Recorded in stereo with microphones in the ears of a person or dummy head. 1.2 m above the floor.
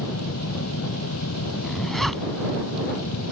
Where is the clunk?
I don't hear a clunk.